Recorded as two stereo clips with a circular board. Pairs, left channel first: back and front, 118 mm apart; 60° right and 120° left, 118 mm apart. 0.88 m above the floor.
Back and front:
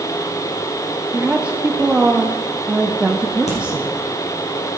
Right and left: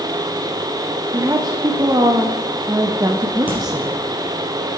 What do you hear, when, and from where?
1.1 s a woman speaking: 75° left, 0.6 m
3.5 s a crack: 165° right, 3.5 m